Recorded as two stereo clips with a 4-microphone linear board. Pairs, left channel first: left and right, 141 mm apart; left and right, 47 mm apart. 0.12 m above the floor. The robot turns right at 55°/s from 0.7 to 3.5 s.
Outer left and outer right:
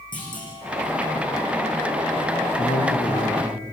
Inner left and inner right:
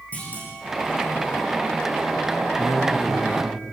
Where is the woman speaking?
110° left, 3.5 m; by 3.6 s 160° left, 3.5 m.